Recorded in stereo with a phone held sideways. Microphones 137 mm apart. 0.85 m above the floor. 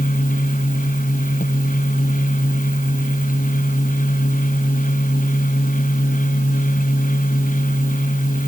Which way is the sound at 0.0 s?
80° left.